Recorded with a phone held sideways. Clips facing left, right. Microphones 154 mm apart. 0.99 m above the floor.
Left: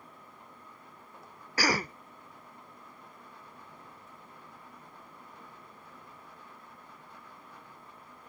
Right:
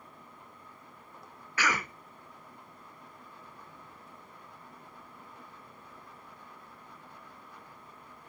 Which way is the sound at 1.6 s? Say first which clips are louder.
Left 3 dB; 35° left (ahead or behind).